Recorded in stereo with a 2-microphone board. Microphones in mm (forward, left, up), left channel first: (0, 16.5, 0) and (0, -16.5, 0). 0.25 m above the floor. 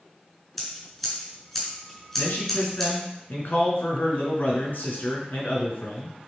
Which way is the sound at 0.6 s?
10° left (ahead or behind).